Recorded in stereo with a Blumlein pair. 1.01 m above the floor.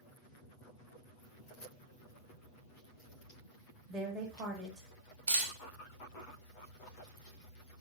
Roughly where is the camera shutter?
Ahead right.